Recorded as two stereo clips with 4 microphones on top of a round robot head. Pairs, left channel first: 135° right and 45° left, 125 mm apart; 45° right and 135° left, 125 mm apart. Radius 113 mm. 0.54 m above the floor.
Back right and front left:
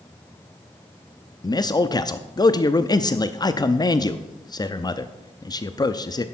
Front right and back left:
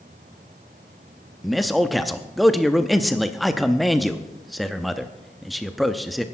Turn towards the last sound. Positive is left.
turn(degrees=-135)